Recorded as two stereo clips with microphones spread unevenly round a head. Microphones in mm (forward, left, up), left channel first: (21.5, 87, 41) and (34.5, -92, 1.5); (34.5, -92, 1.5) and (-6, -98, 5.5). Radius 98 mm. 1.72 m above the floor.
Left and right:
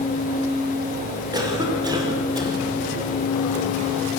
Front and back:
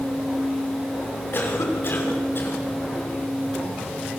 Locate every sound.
1.3 s a cough: 15° right, 6.5 m